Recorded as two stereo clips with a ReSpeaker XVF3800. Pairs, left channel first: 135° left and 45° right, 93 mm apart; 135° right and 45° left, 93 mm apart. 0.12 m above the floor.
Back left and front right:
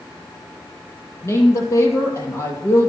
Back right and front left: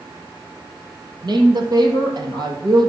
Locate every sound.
1.2 s a woman speaking: 80° left, 3 m